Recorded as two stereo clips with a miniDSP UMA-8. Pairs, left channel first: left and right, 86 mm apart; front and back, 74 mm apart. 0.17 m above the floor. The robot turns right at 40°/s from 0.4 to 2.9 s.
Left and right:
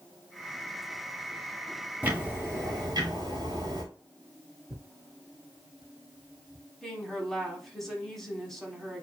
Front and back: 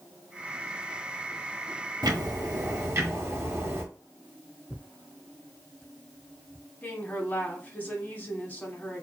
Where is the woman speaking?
10° left, 1.0 m.